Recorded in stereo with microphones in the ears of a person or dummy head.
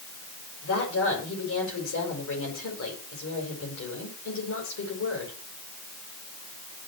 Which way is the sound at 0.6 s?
80° left.